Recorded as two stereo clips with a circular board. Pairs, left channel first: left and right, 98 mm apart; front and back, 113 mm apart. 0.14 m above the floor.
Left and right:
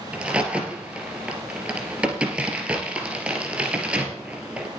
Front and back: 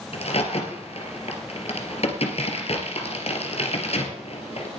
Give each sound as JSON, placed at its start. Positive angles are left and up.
{"t": 0.1, "sound": "a crack", "azimuth_deg": -15, "distance_m": 2.5}